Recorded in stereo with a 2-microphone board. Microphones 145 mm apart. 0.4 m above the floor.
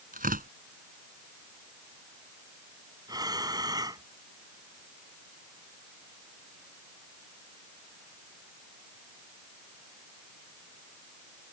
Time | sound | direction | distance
0.1 | tearing paper | 80° right | ?
3.1 | breathing | 25° right (ahead or behind) | ?